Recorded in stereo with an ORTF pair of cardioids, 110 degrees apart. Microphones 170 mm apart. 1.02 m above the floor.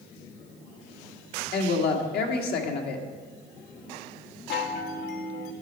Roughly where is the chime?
Left.